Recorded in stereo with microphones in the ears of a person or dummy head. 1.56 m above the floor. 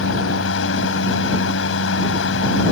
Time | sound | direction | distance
0.0 | a fan | 90° left | ?